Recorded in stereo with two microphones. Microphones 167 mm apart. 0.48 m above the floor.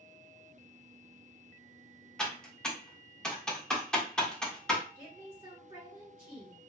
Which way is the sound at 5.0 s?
15° right (ahead or behind).